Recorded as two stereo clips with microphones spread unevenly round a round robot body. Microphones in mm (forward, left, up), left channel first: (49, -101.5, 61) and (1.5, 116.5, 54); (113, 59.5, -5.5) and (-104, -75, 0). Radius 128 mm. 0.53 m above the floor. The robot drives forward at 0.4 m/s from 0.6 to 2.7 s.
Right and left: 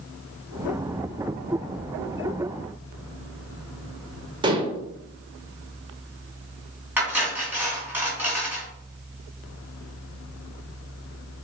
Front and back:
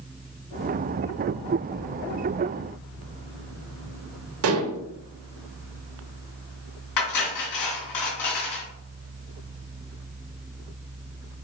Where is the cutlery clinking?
20° left, 3.5 m.